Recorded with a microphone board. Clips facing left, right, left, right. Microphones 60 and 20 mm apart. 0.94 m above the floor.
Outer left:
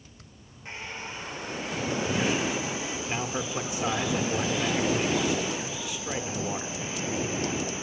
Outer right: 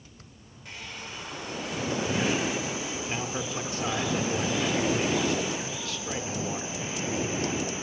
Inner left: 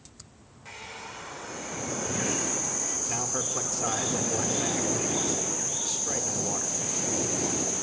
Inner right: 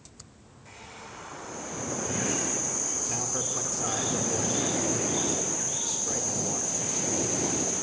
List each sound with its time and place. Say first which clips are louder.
0.7 s a hair dryer: outer left 3 dB, inner left 4 dB; 30° left (ahead or behind), 4 m
3.1 s a man speaking: outer left 3 dB, inner left 1 dB; 10° left (ahead or behind), 2.5 m